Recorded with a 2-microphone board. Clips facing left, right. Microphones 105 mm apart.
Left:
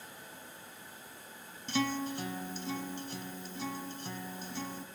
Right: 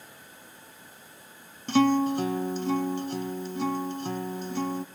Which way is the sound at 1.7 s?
60° right (ahead or behind).